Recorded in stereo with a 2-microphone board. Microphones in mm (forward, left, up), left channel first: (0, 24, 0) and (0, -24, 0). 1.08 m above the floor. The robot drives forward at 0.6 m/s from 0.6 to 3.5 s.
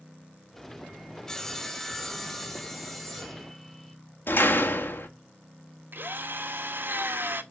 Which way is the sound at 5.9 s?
55° right (ahead or behind).